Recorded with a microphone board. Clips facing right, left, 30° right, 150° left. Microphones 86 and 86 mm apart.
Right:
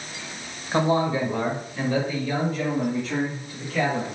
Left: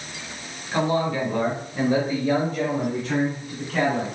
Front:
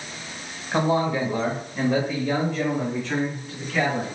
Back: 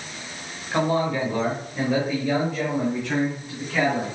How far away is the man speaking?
About 1.2 m.